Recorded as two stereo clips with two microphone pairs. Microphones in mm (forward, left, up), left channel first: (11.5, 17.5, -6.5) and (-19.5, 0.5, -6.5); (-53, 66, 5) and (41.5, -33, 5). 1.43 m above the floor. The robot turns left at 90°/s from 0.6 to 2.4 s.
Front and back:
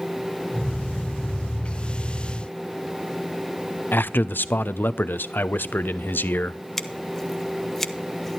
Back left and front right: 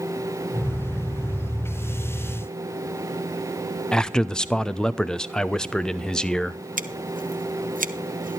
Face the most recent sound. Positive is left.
turn(degrees=-50)